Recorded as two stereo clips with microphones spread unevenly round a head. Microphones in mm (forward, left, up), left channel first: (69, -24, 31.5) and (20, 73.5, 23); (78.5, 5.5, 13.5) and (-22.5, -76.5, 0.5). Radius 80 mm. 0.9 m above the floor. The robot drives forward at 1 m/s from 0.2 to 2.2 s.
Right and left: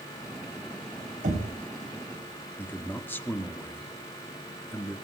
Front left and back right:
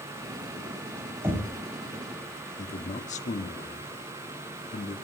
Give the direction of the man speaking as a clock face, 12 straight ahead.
12 o'clock.